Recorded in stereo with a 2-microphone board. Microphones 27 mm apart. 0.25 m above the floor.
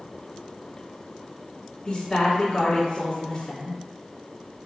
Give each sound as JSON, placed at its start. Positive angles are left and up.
{"t": 1.9, "sound": "a woman speaking", "side_deg": 20, "distance_m": 2.0}